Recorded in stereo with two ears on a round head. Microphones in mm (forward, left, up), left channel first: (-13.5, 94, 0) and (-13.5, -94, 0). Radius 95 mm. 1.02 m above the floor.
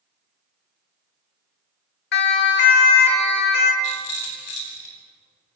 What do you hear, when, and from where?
2.1 s a siren: 55° left (ahead or behind), 2.5 m; by 3.7 s 50° left (ahead or behind), 4.5 m
3.8 s a rattle: 85° left, 8 m